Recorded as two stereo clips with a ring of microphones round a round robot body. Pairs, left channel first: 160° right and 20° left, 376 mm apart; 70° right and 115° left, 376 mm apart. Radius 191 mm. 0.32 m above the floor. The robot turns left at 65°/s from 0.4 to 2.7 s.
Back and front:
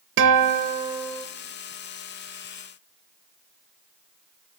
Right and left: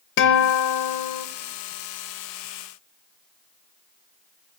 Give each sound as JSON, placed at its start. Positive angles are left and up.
{"t": 0.2, "sound": "a guitar", "azimuth_deg": -25, "distance_m": 0.5}